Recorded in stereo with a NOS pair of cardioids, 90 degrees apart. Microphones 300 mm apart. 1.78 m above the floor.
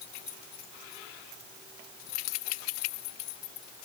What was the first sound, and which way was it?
Only background noise.